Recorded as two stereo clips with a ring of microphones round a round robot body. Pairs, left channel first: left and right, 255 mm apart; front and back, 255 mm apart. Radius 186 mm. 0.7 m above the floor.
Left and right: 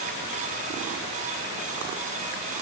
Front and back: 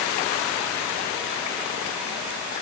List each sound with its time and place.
Only background noise.